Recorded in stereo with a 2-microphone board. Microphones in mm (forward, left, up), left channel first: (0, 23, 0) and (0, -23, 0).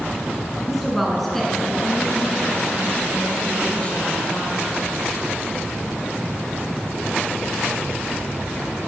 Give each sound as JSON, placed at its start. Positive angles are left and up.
{"t": 0.7, "sound": "a woman speaking", "side_deg": -5, "distance_m": 2.0}